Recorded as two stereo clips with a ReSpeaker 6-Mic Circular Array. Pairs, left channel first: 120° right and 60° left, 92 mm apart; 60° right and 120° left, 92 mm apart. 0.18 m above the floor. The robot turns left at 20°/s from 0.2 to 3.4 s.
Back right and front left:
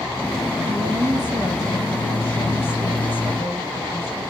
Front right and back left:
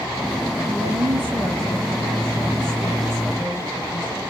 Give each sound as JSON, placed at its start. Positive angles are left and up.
{"t": 0.7, "sound": "a woman speaking", "azimuth_deg": 115, "distance_m": 4.0}